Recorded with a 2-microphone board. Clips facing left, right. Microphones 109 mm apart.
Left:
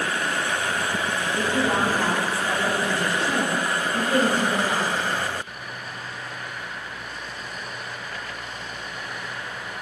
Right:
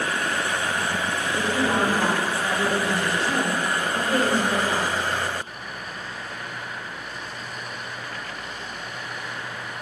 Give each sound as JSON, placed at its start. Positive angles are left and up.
{"t": 1.3, "sound": "a woman speaking", "side_deg": 0, "distance_m": 1.8}